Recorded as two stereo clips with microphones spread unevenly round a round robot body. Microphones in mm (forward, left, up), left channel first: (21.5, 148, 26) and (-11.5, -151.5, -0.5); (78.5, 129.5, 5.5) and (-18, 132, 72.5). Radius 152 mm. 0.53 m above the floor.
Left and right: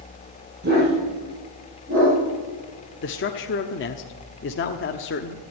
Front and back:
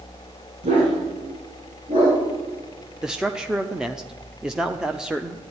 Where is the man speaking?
45° left, 0.9 m.